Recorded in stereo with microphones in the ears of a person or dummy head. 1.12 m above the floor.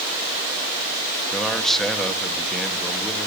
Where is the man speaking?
Centre (ahead or behind), 1.6 m.